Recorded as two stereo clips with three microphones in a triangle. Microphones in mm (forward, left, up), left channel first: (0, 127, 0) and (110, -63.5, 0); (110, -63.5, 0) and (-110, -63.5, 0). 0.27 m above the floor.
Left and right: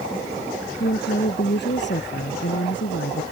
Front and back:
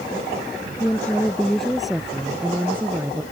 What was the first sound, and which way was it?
A woman speaking, 80° left.